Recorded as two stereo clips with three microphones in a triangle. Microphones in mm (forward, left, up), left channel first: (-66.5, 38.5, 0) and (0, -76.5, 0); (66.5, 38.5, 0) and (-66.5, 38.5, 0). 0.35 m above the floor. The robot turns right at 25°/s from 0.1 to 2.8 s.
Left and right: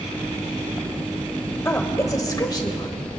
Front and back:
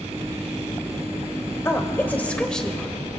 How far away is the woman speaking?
About 1.3 m.